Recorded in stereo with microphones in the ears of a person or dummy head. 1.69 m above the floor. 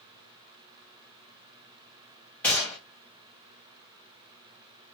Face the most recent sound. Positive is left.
turn(degrees=5)  # may be behind; listen again after turning